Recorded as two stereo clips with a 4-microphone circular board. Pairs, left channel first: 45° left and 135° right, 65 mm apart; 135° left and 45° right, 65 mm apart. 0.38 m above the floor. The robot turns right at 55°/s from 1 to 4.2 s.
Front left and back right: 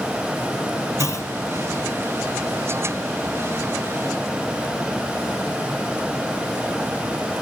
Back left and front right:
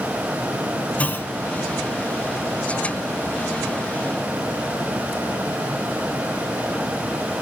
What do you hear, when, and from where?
1.0 s a clunk: 70° left, 0.6 m; by 1.3 s 85° left, 0.6 m